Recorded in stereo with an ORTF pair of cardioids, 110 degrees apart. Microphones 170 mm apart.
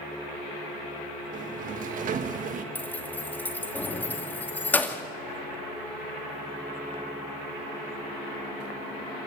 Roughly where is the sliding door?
Ahead right.